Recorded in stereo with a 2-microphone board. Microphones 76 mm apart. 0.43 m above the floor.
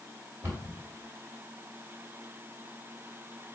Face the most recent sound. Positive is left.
turn(degrees=-30)  # may be behind; listen again after turning